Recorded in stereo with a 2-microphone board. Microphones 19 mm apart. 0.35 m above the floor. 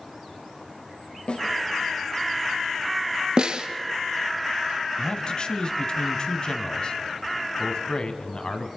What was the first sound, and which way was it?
A snare drum, 75° left (ahead or behind).